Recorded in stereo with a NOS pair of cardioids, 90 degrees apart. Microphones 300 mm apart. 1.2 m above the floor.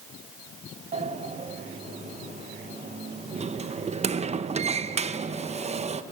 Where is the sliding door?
20° right, 0.8 m.